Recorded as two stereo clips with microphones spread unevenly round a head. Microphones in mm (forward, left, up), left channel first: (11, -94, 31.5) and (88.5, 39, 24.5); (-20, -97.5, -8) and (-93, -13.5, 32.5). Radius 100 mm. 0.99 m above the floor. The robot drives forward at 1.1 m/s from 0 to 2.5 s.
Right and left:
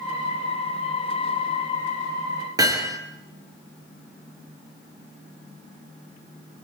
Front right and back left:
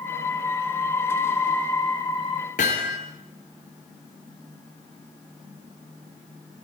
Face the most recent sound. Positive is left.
turn(degrees=-5)